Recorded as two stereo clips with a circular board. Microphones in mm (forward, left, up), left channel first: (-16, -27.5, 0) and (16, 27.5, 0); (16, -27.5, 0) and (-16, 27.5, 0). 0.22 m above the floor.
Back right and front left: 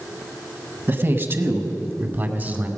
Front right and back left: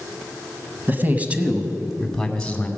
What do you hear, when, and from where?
0.9 s a man speaking: 85° left, 1.2 m; by 2.7 s 10° left, 1.4 m